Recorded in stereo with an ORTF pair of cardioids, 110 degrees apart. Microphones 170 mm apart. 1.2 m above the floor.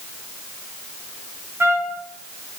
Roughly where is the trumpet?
Ahead.